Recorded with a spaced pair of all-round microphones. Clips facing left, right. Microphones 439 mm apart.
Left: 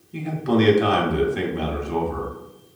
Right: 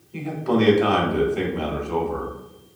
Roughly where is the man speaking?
Left.